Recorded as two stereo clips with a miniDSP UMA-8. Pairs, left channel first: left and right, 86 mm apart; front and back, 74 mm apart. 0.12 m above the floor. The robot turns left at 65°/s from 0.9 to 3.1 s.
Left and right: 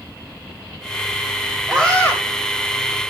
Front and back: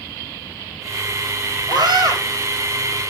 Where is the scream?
175° left, 6.5 m; by 2.2 s 145° left, 6.5 m.